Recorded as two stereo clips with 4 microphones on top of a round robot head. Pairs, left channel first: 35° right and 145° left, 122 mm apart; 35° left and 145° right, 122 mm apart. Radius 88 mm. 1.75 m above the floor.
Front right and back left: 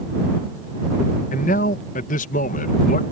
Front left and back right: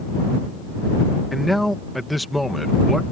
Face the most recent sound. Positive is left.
turn(degrees=-55)